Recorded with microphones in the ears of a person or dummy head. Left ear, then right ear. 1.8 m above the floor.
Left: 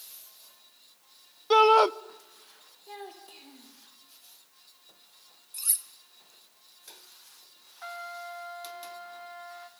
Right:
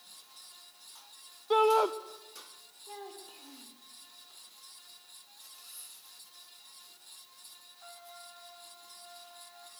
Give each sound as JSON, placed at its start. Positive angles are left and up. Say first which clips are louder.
{"t": 1.5, "sound": "a shout", "louder": "left 6 dB", "side_deg": 40, "distance_m": 0.7}
{"t": 2.9, "sound": "a child speaking", "louder": "left 2 dB", "side_deg": 20, "distance_m": 3.5}
{"t": 5.5, "sound": "cutlery clinking", "louder": "left 17 dB", "side_deg": 60, "distance_m": 2.0}
{"t": 7.8, "sound": "a trumpet", "louder": "left 13 dB", "side_deg": 60, "distance_m": 1.8}